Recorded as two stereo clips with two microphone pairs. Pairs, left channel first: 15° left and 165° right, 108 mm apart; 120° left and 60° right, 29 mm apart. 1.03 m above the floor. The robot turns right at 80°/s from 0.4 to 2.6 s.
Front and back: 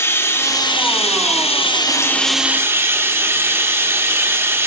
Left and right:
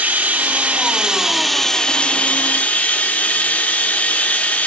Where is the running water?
50° right, 0.9 m; by 4.7 s 125° left, 0.9 m.